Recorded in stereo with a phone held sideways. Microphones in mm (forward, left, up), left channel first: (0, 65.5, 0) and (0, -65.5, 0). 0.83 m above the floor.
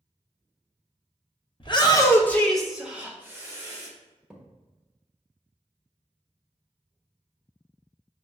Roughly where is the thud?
Centre.